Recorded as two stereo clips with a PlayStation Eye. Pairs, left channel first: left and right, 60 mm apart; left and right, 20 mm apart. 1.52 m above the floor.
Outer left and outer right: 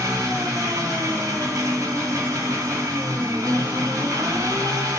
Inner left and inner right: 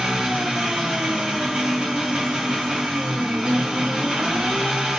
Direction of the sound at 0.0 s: 55° right (ahead or behind).